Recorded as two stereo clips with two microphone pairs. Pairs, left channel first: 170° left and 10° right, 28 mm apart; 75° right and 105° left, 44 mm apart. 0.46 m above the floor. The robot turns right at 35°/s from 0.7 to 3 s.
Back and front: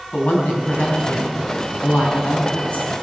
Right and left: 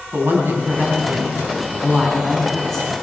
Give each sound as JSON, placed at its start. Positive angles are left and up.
{"t": 0.1, "sound": "a woman speaking", "azimuth_deg": 135, "distance_m": 3.5}